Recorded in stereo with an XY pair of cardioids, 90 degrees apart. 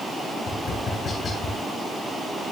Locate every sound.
0.5 s tapping: 60° left, 6.5 m